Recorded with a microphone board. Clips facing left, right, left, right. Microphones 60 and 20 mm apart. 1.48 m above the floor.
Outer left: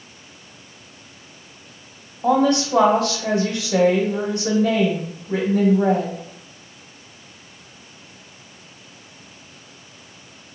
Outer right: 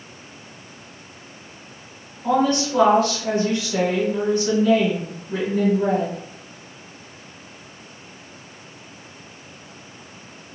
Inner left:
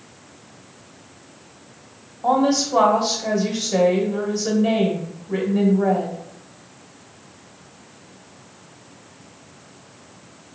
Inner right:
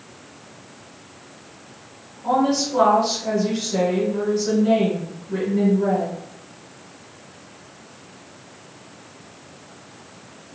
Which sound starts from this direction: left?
A woman speaking, at 2.2 s.